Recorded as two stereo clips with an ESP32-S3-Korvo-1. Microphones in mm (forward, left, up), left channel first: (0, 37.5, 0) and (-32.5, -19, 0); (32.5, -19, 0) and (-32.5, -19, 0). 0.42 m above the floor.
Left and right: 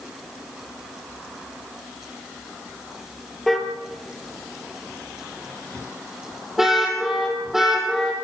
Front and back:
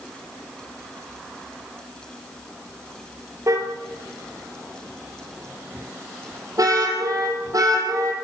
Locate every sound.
3.5 s a car horn: 150° left, 5 m; by 8.2 s 155° left, 9.5 m